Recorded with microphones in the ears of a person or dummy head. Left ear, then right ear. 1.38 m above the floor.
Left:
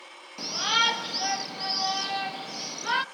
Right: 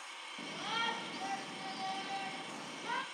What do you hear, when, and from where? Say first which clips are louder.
0.4 s a shout: left 14 dB; 50° left (ahead or behind), 0.7 m